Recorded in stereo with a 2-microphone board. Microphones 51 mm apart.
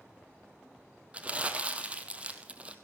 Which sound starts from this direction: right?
Crumpling, at 1.1 s.